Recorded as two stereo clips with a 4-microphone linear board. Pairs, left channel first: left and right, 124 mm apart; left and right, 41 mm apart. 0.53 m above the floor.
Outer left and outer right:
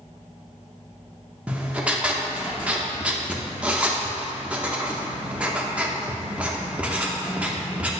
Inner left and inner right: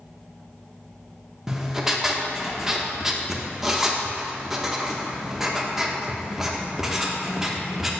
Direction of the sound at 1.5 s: 10° right (ahead or behind).